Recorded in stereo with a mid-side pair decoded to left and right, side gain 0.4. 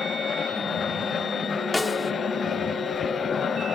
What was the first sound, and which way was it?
A machine running, 50° left.